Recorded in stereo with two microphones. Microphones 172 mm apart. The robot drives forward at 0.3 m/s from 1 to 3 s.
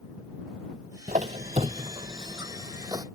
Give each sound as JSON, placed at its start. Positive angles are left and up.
{"t": 1.1, "sound": "a squeak", "side_deg": -50}